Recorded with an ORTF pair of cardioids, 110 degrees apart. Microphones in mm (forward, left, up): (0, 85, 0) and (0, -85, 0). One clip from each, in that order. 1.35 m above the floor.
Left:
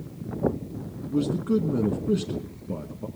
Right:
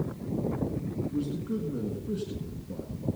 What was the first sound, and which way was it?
A man speaking, 50° left.